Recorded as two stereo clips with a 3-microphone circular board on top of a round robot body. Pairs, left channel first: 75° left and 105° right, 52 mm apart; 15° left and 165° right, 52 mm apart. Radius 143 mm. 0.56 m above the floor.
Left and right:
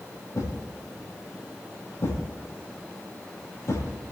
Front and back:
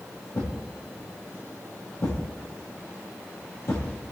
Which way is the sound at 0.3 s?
45° left.